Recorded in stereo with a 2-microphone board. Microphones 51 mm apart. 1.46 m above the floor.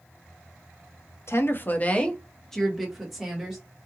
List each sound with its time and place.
1.3 s a woman speaking: 55° left (ahead or behind), 0.6 m; by 3.6 s 10° right (ahead or behind), 1.4 m